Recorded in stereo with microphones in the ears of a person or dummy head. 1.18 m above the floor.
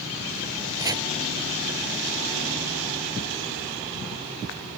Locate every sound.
0.8 s chopping: 15° right (ahead or behind)